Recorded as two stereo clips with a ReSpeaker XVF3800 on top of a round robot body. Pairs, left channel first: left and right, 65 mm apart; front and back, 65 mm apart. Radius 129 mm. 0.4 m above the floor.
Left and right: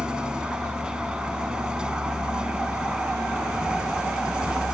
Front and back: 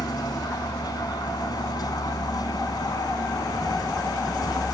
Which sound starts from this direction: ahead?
A vehicle, at 0.0 s.